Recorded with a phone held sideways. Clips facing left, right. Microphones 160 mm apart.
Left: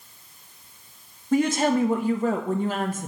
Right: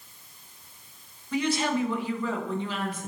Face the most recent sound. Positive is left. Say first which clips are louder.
# left 6 dB
turn(degrees=45)  # may be behind; listen again after turning